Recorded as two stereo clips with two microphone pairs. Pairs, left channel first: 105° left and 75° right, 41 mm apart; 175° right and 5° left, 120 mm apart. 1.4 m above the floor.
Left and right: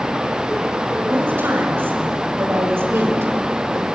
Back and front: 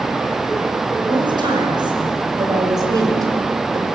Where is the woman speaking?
45° right, 7 m; by 3.9 s 60° right, 5.5 m.